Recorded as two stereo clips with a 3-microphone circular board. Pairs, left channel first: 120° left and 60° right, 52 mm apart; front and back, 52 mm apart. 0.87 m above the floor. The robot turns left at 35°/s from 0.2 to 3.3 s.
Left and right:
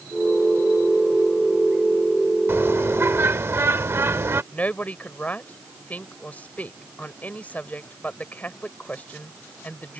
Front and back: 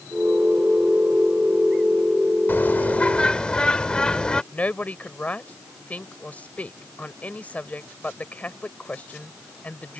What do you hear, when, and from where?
2.5 s a bird: 35° right; by 4.4 s 65° right
4.5 s a woman speaking: 60° left